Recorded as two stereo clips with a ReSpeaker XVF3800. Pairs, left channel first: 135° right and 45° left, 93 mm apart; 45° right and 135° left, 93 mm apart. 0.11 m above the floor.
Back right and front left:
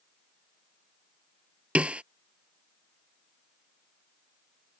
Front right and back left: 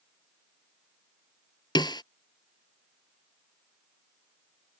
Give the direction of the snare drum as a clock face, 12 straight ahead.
1 o'clock.